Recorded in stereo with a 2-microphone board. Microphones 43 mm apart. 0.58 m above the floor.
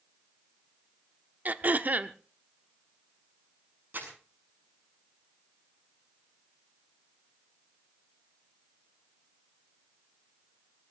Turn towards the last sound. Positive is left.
turn(degrees=-55)  # may be behind; listen again after turning